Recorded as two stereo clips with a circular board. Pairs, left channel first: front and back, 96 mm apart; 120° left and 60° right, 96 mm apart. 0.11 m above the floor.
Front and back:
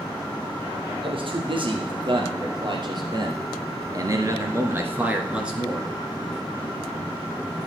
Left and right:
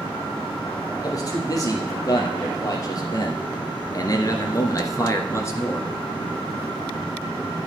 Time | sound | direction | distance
1.0 | a man speaking | 170° left | 3 m